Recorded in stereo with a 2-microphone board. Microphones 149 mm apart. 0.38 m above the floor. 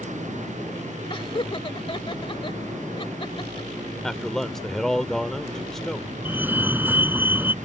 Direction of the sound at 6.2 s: 15° right (ahead or behind).